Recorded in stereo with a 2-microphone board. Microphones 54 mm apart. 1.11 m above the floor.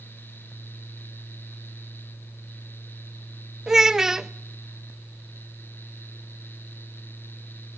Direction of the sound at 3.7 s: 10° right (ahead or behind).